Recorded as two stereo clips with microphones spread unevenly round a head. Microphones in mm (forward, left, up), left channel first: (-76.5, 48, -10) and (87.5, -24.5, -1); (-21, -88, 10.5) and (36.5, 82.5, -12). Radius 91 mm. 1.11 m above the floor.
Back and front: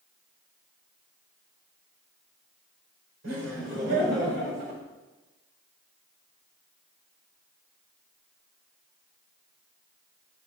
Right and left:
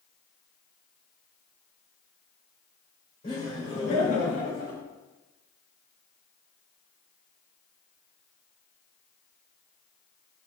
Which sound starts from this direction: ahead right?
Laughter, at 3.2 s.